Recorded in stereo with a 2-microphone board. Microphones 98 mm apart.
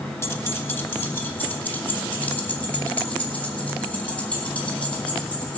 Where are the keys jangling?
25° left (ahead or behind), 1.1 m; by 5.6 s 15° left (ahead or behind), 4.5 m.